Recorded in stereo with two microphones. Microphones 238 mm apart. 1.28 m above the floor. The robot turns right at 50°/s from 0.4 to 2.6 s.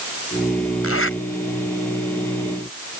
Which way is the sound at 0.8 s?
75° left (ahead or behind).